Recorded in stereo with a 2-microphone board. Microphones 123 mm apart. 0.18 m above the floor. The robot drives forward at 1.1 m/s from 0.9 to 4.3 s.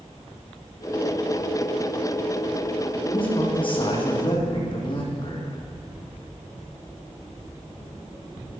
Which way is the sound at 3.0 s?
45° left (ahead or behind).